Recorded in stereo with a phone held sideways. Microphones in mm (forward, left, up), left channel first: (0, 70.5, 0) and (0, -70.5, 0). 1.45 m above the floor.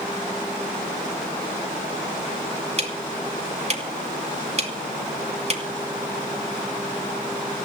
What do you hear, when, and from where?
2.8 s ticking: 45° right (ahead or behind), 2.5 m